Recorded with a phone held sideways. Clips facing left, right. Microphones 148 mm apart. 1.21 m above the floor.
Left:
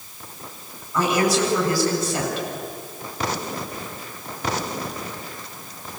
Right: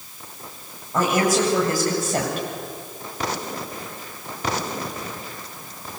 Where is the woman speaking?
50° right (ahead or behind), 8 m.